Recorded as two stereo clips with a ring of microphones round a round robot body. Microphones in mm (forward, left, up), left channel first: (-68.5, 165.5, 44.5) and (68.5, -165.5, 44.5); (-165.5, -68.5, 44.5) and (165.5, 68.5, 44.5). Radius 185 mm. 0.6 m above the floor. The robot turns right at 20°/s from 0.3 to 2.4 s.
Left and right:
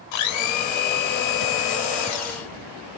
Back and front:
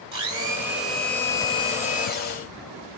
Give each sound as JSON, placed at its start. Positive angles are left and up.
{"t": 0.1, "sound": "a blender", "azimuth_deg": 100, "distance_m": 1.3}